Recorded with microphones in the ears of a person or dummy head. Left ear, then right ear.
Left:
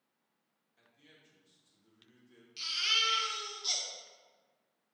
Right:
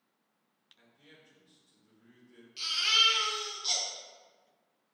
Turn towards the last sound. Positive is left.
turn(degrees=10)  # may be behind; listen again after turning